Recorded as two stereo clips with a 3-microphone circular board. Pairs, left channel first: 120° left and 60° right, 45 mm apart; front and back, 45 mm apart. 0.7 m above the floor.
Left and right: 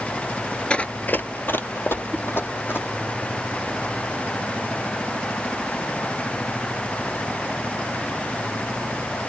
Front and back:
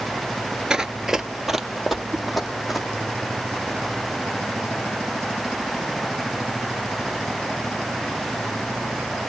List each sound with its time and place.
0.7 s running footsteps: 135° left, 0.7 m; by 2.9 s 90° left, 2.5 m
2.1 s a whoosh: 175° right, 1.7 m